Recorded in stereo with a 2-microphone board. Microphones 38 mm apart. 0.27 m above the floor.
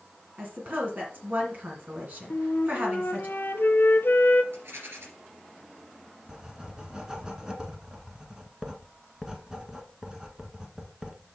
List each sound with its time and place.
0.4 s a woman speaking: 50° right (ahead or behind), 2 m
2.3 s a flute: 65° left (ahead or behind), 0.8 m
4.5 s a rattle: 75° right (ahead or behind), 2.5 m
6.3 s writing: 20° right (ahead or behind), 1.3 m